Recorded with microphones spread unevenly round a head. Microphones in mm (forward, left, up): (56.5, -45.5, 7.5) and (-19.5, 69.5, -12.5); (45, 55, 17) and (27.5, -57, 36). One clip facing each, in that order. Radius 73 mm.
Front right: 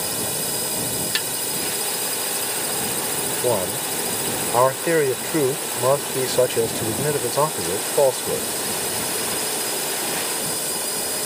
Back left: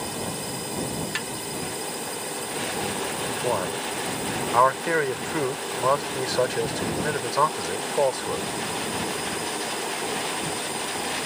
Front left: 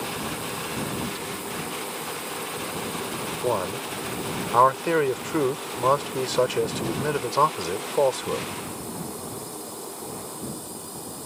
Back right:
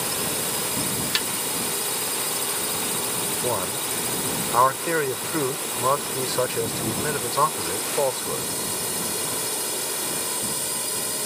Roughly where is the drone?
Right.